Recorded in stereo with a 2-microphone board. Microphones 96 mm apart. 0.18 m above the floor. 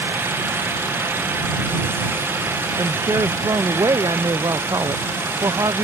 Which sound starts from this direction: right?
A woman speaking, at 2.8 s.